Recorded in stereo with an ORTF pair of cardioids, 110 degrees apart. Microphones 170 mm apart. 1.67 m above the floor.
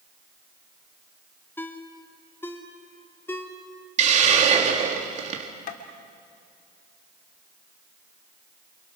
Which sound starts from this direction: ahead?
A ringtone, at 1.6 s.